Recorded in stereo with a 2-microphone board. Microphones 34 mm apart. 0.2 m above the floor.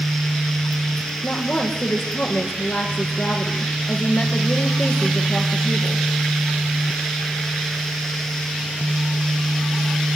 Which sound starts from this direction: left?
A woman speaking, at 1.2 s.